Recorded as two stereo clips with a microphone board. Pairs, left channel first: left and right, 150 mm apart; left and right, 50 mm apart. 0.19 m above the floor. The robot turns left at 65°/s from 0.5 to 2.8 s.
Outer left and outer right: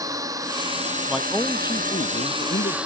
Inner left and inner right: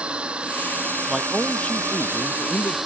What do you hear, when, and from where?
0.0 s a drone: 25° right; by 2.9 s 175° right
1.1 s a man speaking: 170° right; by 2.8 s 80° left